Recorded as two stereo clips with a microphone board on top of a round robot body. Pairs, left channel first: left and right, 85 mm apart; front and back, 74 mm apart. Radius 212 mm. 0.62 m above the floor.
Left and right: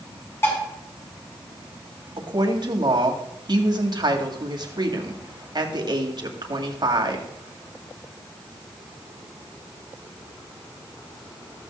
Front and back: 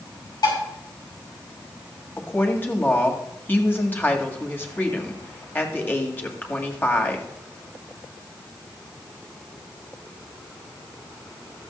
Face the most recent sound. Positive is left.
turn(degrees=-60)